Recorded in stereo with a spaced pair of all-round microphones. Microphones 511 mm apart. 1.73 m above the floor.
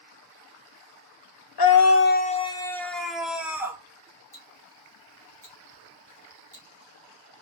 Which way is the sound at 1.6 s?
50° left (ahead or behind).